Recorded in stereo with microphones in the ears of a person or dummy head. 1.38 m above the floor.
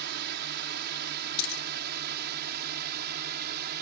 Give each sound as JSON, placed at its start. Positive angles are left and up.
{"t": 0.0, "sound": "a drone", "side_deg": -55}
{"t": 1.4, "sound": "a dropped coin", "side_deg": 35}